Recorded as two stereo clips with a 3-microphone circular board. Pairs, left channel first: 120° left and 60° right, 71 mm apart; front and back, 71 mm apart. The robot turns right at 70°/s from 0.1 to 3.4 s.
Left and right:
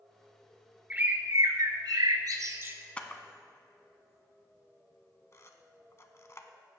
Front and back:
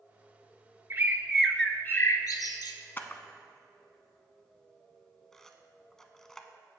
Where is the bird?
130° right, 0.8 m; by 2.8 s 5° left, 0.8 m.